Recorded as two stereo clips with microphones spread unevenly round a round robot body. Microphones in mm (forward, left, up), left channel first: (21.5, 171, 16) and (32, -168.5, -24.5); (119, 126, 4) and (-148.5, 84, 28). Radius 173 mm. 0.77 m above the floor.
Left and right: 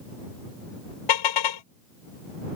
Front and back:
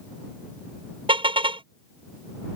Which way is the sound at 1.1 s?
120° left.